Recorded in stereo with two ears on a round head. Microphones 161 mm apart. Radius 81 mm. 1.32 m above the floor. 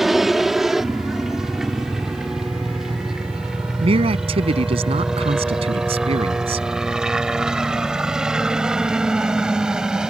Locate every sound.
0.0 s a helicopter: centre (ahead or behind); by 10.1 s 5° right (ahead or behind)
3.8 s a man speaking: 30° right (ahead or behind)